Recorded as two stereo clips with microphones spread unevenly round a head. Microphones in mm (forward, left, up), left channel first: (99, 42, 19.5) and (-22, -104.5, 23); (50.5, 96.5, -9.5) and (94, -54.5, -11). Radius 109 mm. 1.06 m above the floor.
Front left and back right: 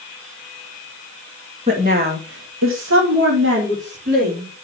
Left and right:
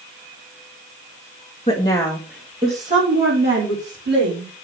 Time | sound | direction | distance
1.7 | a woman speaking | 170° left | 2 m